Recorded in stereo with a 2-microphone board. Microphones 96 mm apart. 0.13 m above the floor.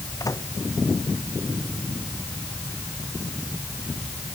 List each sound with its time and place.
0.2 s a microwave: 35° left (ahead or behind)